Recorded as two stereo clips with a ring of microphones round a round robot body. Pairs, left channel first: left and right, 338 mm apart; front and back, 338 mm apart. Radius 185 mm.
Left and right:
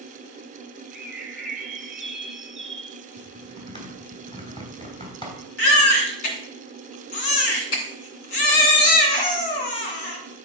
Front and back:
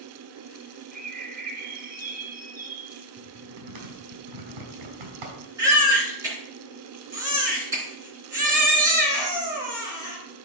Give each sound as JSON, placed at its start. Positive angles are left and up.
{"t": 0.9, "sound": "a bird", "azimuth_deg": 180, "distance_m": 1.2}
{"t": 3.2, "sound": "typing on a keyboard", "azimuth_deg": 170, "distance_m": 3.5}
{"t": 5.6, "sound": "a baby crying", "azimuth_deg": 100, "distance_m": 2.0}